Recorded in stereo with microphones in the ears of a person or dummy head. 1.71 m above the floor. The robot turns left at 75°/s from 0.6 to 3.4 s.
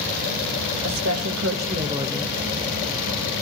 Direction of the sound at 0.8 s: 70° right.